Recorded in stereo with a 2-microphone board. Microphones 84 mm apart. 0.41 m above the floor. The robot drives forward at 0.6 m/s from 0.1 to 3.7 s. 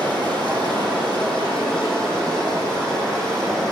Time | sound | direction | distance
0.0 | running water | 70° right (ahead or behind) | 3 m